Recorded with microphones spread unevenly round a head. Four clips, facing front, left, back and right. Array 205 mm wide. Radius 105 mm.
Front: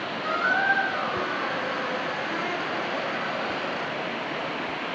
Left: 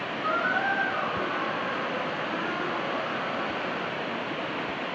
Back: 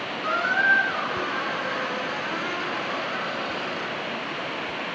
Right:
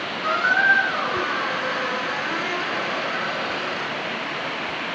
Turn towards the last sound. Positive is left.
turn(degrees=-85)